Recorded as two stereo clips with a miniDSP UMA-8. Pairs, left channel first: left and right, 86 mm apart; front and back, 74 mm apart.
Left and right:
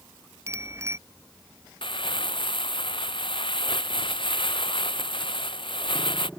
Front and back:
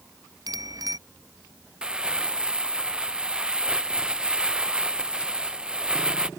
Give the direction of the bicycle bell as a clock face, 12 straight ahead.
5 o'clock.